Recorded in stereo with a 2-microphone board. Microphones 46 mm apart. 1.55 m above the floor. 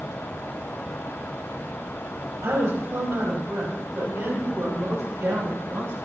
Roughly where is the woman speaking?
Right.